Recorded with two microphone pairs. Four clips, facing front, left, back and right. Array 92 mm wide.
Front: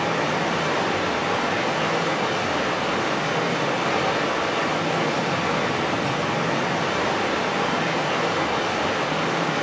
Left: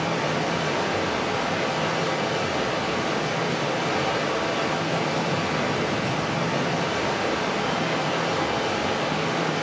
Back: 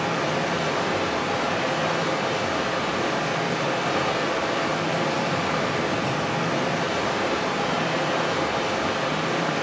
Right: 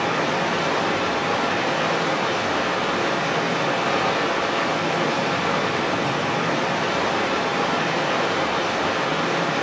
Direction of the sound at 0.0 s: 60° right.